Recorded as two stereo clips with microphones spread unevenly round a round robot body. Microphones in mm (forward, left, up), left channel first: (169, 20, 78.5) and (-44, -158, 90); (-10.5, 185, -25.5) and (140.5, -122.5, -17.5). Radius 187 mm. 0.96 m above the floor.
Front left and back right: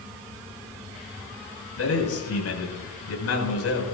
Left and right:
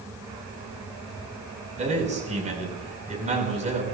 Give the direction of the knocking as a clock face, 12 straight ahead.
No knocking in this recording.